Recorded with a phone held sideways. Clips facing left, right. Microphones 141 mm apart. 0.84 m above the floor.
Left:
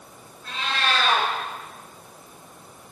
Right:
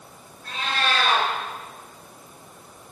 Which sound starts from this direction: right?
A cat meowing, at 0.4 s.